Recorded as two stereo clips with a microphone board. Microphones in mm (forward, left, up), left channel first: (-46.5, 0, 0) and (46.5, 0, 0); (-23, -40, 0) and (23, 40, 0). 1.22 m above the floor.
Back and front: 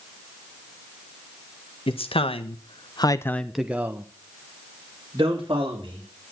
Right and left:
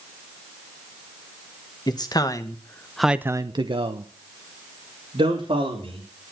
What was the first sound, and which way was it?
A man speaking, 165° right.